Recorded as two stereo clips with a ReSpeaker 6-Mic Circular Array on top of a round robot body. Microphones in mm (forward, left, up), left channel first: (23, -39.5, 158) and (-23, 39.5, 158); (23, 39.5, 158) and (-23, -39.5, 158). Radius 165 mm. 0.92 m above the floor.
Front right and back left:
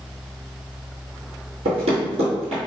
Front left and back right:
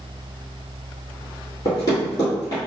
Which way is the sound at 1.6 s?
115° left.